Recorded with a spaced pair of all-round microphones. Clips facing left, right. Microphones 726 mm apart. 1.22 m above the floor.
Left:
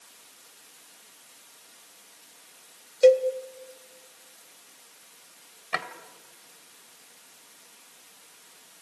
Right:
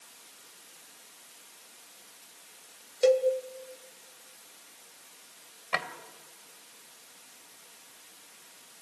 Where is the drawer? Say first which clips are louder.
Even; 5° right (ahead or behind), 1.9 m.